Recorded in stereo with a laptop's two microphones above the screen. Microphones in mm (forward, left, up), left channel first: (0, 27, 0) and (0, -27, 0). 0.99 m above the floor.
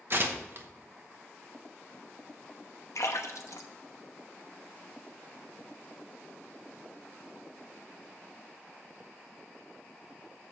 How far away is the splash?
About 0.9 m.